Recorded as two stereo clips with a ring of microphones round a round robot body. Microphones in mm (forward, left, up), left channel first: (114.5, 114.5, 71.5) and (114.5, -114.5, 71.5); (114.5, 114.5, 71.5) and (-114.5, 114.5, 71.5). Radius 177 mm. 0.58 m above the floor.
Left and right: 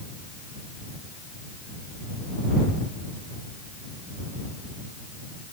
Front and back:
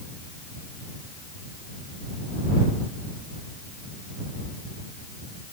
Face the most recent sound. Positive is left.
No sound to turn to.